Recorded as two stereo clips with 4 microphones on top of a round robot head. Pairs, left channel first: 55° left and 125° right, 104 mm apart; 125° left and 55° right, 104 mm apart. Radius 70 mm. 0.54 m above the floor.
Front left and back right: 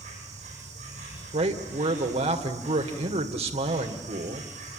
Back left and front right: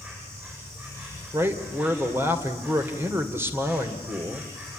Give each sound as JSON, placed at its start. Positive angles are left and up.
{"t": 0.0, "sound": "an insect", "azimuth_deg": -125, "distance_m": 9.0}
{"t": 1.3, "sound": "a man speaking", "azimuth_deg": -120, "distance_m": 2.5}